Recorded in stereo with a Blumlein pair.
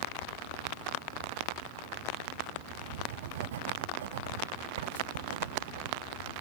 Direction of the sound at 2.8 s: 60° right.